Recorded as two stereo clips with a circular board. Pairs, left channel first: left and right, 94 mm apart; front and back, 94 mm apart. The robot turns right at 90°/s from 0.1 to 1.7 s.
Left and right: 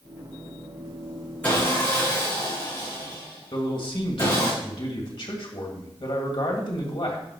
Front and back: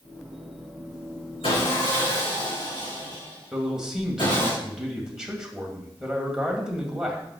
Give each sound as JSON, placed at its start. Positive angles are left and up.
{"t": 1.4, "sound": "sawing", "azimuth_deg": 15, "distance_m": 5.0}
{"t": 3.5, "sound": "a man speaking", "azimuth_deg": 100, "distance_m": 2.0}